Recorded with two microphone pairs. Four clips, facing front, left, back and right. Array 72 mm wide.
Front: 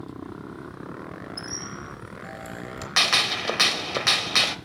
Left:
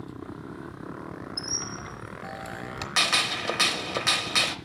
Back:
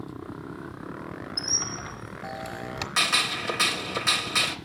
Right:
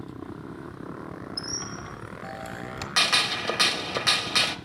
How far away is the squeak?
About 0.9 m.